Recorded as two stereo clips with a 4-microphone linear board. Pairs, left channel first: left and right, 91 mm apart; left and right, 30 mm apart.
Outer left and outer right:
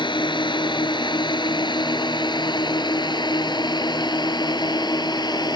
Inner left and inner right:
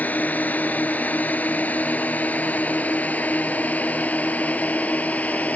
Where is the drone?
60° left (ahead or behind); by 5.6 s 50° left (ahead or behind).